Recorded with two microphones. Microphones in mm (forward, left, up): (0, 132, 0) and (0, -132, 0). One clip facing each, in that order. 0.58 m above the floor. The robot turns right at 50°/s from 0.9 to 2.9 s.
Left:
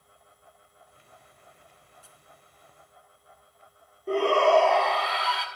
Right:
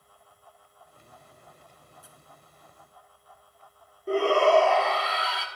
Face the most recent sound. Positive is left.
turn(degrees=0)  # may be behind; listen again after turning